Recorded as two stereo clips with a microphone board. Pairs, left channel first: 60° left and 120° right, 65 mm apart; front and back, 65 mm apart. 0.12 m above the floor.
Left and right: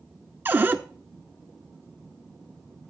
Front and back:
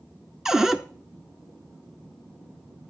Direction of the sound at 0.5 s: 105° right.